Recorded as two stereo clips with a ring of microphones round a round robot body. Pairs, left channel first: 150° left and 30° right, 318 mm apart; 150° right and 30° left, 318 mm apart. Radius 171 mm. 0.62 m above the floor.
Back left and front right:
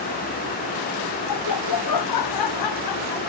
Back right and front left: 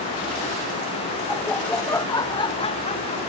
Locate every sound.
1.3 s laughter: 120° left; by 3.2 s 140° left